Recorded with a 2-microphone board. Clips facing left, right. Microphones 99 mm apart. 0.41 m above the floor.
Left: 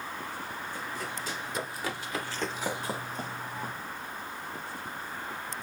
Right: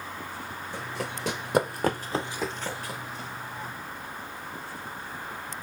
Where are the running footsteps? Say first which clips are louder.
Right 5 dB; 80° right, 1.8 m; by 3.7 s 50° left (ahead or behind), 1.6 m.